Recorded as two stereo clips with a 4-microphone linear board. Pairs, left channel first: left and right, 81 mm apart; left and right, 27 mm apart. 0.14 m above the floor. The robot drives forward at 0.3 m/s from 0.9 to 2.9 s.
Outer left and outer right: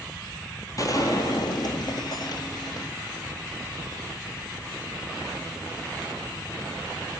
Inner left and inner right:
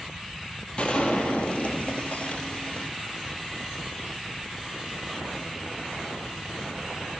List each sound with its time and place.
0.8 s a gunshot: 45° left (ahead or behind), 0.8 m; by 2.9 s 75° left (ahead or behind), 0.6 m